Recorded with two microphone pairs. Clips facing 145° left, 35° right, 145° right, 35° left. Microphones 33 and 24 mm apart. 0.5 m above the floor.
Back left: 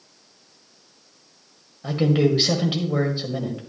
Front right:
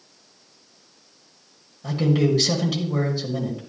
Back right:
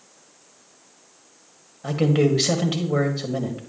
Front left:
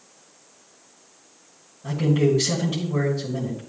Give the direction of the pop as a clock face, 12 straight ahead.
No pop in this recording.